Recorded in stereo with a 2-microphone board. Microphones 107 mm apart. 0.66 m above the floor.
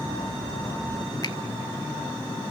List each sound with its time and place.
1.2 s a finger snap: 45° left (ahead or behind), 1.1 m